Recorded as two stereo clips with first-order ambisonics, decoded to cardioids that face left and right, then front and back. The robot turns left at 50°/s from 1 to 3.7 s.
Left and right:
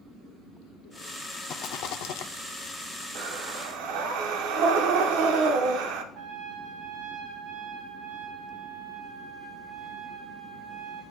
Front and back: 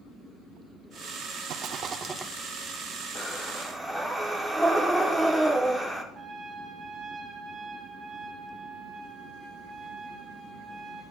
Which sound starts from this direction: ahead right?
Breathing, at 3.1 s.